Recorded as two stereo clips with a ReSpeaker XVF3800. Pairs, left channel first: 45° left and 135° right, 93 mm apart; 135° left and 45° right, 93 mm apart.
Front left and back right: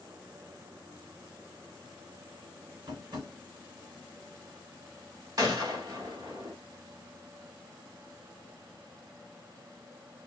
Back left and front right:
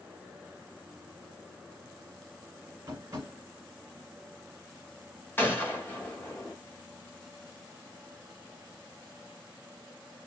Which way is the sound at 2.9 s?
95° right.